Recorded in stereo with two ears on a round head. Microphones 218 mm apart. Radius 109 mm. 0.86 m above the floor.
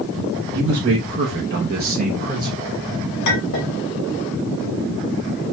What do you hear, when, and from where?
0.5 s a man speaking: 55° right (ahead or behind), 1.3 m; by 2.7 s 10° right (ahead or behind), 1.0 m
3.2 s a clink: 85° left, 2 m